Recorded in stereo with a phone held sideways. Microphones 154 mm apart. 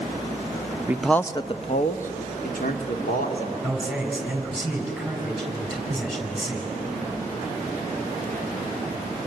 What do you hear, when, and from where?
0.9 s a man speaking: 15° right (ahead or behind), 0.6 m; by 3.5 s 75° left (ahead or behind), 2.5 m
3.6 s a man speaking: centre (ahead or behind), 5.5 m